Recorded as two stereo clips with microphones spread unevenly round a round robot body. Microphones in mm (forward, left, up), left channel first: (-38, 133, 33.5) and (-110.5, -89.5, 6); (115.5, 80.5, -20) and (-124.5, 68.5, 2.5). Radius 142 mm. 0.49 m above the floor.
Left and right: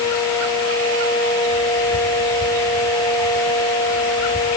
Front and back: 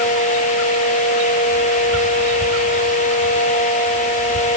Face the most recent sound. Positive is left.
No sound to turn to.